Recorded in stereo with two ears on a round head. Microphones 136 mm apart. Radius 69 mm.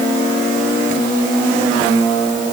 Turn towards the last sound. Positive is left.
No sound to turn to.